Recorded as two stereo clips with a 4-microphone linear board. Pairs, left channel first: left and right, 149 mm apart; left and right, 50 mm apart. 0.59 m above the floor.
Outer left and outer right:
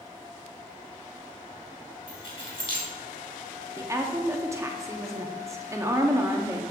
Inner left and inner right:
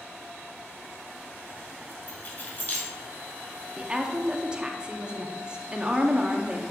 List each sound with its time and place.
2.1 s keys jangling: 40° left (ahead or behind), 2 m
3.8 s a woman speaking: 20° right (ahead or behind), 0.6 m